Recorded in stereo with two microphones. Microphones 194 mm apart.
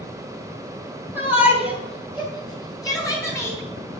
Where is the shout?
10° right (ahead or behind), 2.5 m; by 3.6 s centre (ahead or behind), 4 m.